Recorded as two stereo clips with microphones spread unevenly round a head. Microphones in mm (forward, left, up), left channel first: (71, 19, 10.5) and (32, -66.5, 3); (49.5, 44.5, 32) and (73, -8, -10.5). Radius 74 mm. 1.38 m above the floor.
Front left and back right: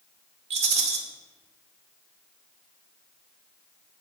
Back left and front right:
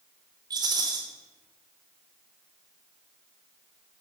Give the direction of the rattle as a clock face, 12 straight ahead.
4 o'clock.